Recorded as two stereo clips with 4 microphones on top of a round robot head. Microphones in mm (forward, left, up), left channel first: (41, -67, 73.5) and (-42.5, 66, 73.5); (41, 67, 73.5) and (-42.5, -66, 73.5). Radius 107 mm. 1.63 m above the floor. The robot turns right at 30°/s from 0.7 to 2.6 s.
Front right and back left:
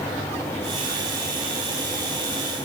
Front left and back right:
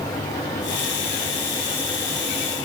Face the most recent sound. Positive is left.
No sound to turn to.